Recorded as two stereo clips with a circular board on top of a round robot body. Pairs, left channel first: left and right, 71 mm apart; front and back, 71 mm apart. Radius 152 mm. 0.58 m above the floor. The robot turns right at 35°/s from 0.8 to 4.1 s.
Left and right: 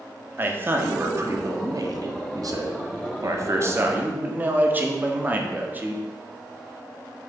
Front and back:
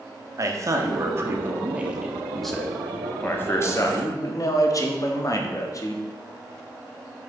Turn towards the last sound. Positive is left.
turn(degrees=-30)